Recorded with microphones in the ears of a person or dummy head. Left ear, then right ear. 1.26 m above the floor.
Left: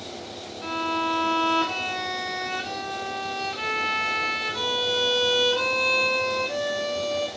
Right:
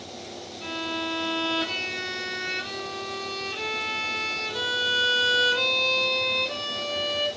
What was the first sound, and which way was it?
A violin, 50° right (ahead or behind).